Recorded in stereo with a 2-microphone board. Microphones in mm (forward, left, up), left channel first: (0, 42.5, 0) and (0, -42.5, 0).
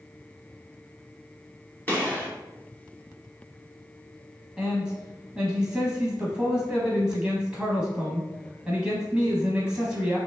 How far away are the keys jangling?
No keys jangling in this recording.